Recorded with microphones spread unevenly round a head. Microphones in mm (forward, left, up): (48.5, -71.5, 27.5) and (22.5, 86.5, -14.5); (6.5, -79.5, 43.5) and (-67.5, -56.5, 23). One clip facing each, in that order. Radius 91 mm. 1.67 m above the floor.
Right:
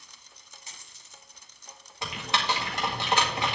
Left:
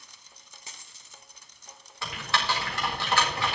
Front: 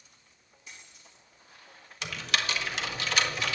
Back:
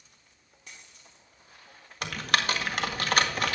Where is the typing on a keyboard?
150° right, 1.8 m.